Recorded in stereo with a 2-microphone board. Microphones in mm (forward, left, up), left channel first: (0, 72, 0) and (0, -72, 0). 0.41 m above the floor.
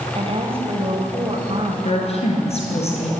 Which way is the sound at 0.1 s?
40° right (ahead or behind).